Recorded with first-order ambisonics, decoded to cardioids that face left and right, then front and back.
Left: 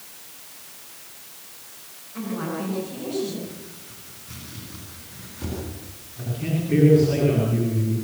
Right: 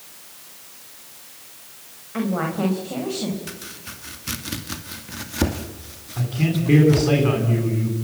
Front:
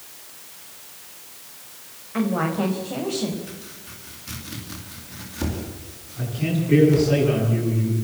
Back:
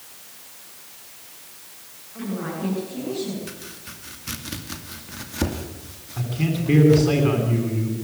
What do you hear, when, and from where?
2.1 s a woman speaking: 45° right, 4.5 m; by 3.4 s 50° right, 5 m
3.5 s chopping: 110° right, 2.5 m
6.2 s a man speaking: 125° right, 8.5 m